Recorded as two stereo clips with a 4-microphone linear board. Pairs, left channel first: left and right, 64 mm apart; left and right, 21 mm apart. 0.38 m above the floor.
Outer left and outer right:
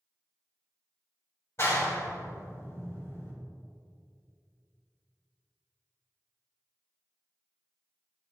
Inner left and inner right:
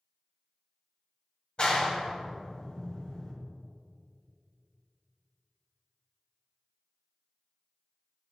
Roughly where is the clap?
Left.